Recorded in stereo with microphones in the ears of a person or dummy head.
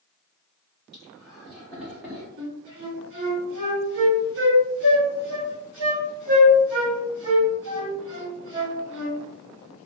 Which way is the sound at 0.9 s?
Centre (ahead or behind).